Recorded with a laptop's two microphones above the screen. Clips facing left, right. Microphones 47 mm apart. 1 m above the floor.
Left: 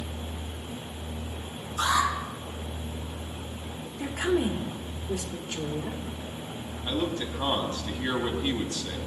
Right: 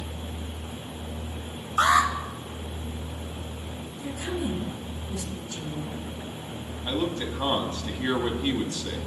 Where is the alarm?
60° right (ahead or behind), 3 m.